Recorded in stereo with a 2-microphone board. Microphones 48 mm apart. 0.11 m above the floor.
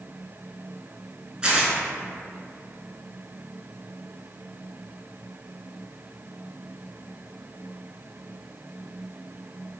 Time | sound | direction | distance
1.4 | tearing paper | 20° right (ahead or behind) | 0.6 m